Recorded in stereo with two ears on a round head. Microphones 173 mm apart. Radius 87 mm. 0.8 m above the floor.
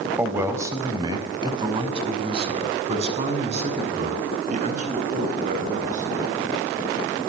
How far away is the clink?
No clink in this recording.